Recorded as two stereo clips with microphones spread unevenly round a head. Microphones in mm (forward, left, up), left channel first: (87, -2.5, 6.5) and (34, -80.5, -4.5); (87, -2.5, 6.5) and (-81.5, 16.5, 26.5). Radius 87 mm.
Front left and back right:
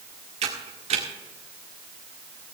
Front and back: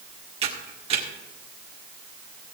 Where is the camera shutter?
135° right, 1.8 m.